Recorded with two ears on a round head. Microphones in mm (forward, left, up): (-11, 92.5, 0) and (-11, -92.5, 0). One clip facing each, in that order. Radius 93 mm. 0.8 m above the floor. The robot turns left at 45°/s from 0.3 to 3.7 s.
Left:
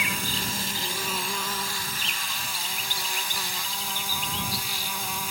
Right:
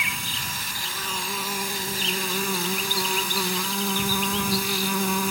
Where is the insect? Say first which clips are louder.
Left 4 dB; 45° left; by 5.3 s 110° right.